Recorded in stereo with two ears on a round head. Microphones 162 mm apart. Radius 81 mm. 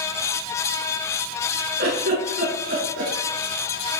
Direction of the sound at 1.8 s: 50° right (ahead or behind).